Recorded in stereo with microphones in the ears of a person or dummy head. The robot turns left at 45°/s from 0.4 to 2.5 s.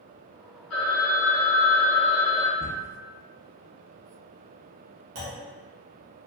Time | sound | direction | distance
0.7 | a phone ringing | 70° left | 1.7 m
2.6 | a cupboard door | 15° right (ahead or behind) | 0.5 m
5.2 | a clunk | 45° right (ahead or behind) | 1.0 m